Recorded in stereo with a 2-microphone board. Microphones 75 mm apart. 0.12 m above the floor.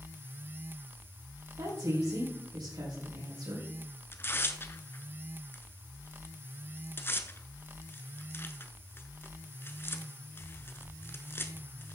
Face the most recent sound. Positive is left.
turn(degrees=30)  # may be behind; listen again after turning